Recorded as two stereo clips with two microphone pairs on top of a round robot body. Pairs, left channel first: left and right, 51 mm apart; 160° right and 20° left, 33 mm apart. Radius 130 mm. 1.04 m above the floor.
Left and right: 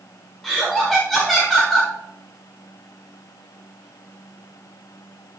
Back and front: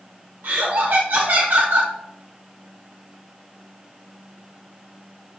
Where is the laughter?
5° left, 1.6 m.